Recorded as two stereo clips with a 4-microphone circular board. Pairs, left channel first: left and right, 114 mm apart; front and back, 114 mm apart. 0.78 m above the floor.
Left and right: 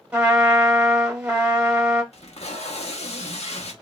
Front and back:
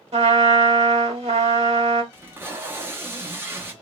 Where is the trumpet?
170° right, 0.9 m.